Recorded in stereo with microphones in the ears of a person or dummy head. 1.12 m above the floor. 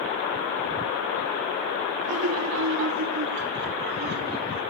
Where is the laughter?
80° right, 1.8 m; by 4.6 s 50° right (ahead or behind), 3 m.